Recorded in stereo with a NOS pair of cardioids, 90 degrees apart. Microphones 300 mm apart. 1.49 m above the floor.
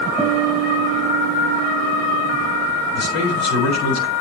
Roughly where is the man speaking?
Ahead left.